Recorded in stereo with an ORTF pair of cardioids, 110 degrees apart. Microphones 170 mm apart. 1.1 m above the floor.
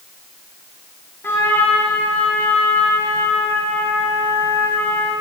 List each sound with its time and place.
1.2 s a trumpet: 15° left, 2.5 m